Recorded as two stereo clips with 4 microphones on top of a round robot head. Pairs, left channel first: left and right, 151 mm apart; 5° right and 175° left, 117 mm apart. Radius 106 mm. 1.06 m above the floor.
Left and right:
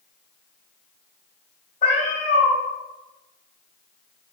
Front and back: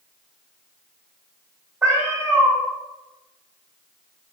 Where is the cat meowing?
105° left, 1.2 m.